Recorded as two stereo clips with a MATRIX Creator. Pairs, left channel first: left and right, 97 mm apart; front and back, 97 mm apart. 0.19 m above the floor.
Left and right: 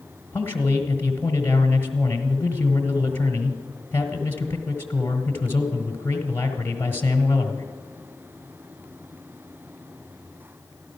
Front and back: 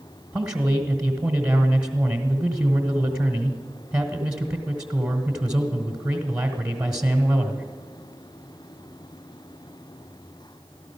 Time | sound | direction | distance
0.3 | a man speaking | 115° left | 1.2 m